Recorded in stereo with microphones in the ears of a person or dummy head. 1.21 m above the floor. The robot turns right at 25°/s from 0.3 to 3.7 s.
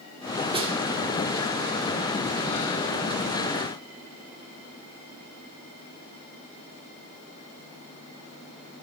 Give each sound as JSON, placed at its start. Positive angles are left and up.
{"t": 0.5, "sound": "a snare drum", "side_deg": -30, "distance_m": 2.5}